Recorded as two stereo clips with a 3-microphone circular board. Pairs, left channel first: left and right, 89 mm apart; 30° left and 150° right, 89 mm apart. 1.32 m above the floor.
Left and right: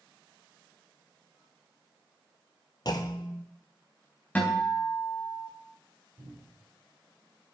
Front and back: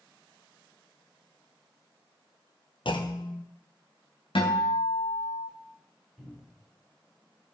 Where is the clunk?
50° left, 1.1 m.